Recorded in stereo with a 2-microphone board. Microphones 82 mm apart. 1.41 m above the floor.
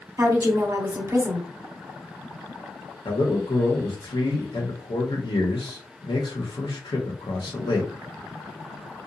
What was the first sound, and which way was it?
A woman speaking, 35° right (ahead or behind).